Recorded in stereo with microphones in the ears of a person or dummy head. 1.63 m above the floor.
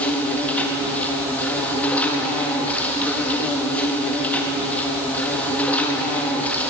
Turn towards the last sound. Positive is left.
turn(degrees=5)  # may be behind; listen again after turning